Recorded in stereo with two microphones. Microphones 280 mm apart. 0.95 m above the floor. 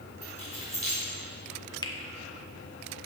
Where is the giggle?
No giggle in this recording.